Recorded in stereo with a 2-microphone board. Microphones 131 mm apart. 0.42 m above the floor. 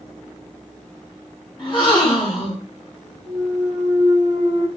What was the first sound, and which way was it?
A gasp, 35° left (ahead or behind).